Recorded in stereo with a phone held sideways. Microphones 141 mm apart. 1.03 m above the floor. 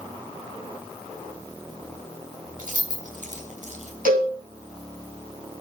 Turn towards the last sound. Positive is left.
turn(degrees=-80)